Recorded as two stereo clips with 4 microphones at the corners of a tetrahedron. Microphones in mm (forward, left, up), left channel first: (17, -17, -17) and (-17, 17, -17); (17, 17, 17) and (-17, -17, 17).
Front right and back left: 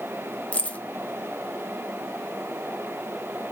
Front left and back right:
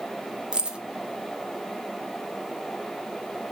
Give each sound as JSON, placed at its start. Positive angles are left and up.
{"t": 0.5, "sound": "keys jangling", "azimuth_deg": -75, "distance_m": 0.5}